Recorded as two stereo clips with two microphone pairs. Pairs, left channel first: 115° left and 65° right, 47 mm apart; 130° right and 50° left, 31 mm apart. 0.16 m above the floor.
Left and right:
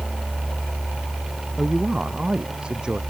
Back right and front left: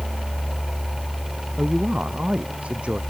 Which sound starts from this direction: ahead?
A woman speaking, at 1.6 s.